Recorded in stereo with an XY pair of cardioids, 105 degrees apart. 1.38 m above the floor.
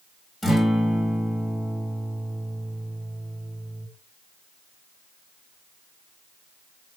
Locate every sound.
0.4 s a guitar: 25° left, 1.7 m